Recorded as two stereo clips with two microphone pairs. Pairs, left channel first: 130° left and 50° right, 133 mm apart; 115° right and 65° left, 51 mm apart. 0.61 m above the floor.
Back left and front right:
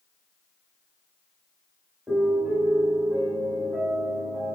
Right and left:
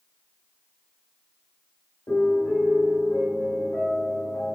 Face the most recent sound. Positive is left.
turn(degrees=-120)